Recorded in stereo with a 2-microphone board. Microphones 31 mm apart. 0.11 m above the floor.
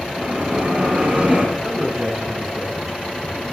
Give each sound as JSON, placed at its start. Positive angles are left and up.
{"t": 0.2, "sound": "a bell", "side_deg": -35, "distance_m": 7.0}
{"t": 1.6, "sound": "a man speaking", "side_deg": -10, "distance_m": 6.0}